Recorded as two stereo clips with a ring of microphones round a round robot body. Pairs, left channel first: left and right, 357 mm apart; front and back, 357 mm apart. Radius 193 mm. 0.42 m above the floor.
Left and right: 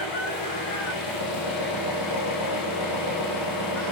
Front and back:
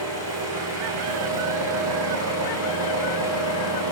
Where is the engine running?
135° left, 10 m.